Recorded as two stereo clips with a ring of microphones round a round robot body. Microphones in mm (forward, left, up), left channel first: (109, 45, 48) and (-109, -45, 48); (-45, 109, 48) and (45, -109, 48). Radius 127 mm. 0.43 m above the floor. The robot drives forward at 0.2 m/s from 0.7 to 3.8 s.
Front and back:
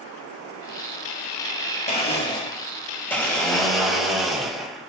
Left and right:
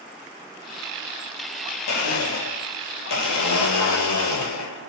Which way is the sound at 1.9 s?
90° left.